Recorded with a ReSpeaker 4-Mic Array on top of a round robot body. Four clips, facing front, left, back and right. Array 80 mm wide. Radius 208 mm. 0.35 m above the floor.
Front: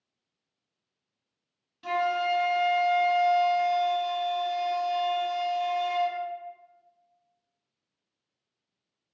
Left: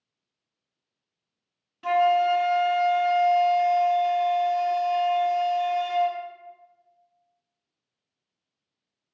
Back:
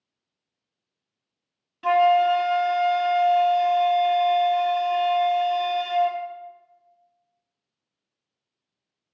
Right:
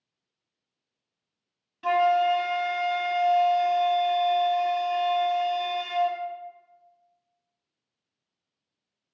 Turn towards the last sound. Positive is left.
turn(degrees=-175)